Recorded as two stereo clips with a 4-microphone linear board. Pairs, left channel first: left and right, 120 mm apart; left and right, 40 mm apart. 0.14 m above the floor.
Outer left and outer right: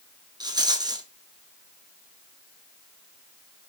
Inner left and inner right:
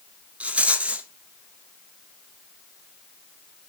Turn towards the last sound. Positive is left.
turn(degrees=-35)  # may be behind; listen again after turning